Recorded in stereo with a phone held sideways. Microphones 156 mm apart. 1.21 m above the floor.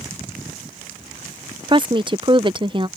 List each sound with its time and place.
1.7 s a woman speaking: 30° right (ahead or behind)